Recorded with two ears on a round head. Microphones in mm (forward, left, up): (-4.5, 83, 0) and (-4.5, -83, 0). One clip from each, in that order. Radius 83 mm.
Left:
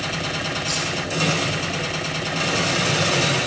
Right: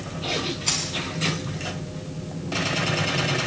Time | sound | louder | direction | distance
0.7 | keys jangling | even | 65° right (ahead or behind) | 9 m